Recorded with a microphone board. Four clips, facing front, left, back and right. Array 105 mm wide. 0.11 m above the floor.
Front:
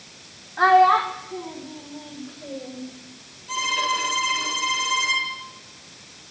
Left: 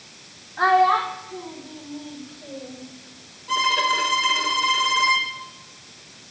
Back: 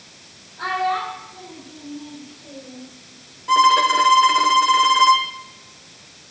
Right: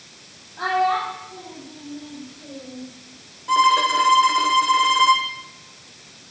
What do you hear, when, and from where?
0.6 s a child speaking: 15° left, 2.5 m; by 2.8 s 5° left, 4.5 m
3.5 s a violin: 160° right, 2.5 m